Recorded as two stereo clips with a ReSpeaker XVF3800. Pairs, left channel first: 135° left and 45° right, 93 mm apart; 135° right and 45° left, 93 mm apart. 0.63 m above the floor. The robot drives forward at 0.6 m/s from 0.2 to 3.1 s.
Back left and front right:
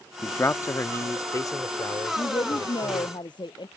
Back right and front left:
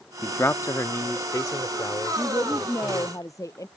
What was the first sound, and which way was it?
A man speaking, straight behind.